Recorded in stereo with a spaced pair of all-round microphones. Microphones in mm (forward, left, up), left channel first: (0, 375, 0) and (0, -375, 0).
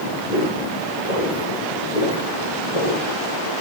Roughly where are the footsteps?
Left.